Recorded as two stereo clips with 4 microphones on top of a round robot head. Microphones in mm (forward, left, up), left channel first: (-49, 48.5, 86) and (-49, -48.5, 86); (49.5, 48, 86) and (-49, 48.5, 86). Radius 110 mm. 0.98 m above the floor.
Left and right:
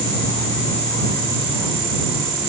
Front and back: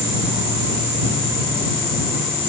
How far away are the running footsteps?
No running footsteps in this recording.